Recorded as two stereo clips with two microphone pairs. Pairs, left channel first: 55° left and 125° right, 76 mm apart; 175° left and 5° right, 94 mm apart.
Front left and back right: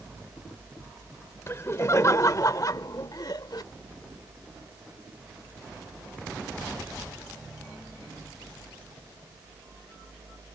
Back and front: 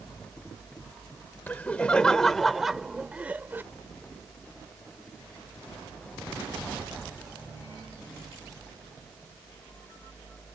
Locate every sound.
1.5 s laughter: 105° left; by 3.6 s 60° left